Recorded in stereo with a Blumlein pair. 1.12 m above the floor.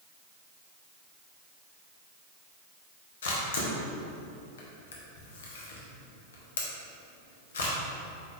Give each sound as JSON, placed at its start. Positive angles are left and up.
{"t": 3.2, "sound": "a camera shutter", "azimuth_deg": 60, "distance_m": 0.9}